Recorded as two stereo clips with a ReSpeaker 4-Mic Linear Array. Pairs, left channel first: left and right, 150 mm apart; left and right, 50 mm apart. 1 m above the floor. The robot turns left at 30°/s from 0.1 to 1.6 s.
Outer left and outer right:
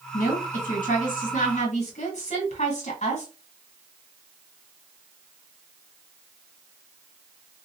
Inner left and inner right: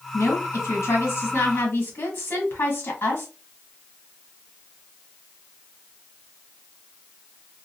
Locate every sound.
0.1 s a woman speaking: 105° left, 1.7 m; by 3.3 s 60° left, 1.7 m